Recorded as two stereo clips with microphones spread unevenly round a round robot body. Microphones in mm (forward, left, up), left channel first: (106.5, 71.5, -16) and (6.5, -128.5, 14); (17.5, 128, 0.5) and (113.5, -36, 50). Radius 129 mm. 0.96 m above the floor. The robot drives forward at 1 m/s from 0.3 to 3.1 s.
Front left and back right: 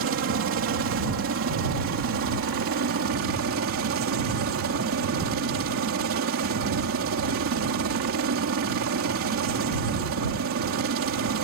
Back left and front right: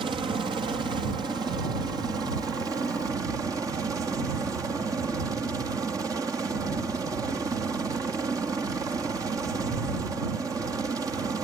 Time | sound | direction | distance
0.0 | a helicopter | 135° right | ?